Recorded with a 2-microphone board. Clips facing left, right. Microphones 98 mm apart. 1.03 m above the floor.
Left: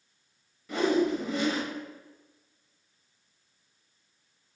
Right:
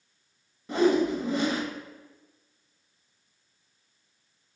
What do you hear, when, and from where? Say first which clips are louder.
0.7 s a whoosh: right 3 dB; 30° right (ahead or behind), 0.5 m